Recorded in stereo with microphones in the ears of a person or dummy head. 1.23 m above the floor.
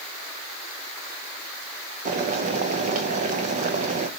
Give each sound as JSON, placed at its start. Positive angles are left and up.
{"t": 2.0, "sound": "boiling", "side_deg": -40, "distance_m": 0.6}